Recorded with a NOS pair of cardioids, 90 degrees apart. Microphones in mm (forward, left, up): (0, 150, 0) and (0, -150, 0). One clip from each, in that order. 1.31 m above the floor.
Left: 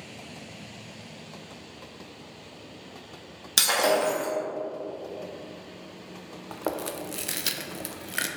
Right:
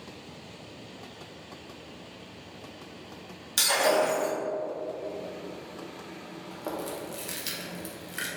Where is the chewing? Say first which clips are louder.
Left 4 dB; 35° left, 0.5 m.